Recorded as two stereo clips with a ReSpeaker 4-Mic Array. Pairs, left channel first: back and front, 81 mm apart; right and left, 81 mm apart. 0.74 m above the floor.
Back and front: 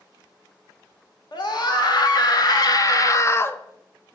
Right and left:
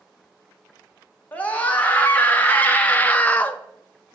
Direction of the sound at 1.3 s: 160° right.